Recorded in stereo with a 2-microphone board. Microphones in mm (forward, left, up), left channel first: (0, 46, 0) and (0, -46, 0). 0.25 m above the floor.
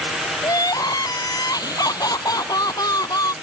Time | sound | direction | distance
0.4 | crying | 45° left (ahead or behind) | ?